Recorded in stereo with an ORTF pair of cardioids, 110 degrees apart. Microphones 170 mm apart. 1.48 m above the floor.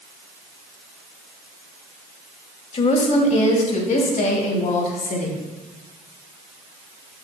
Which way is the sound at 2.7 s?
35° left.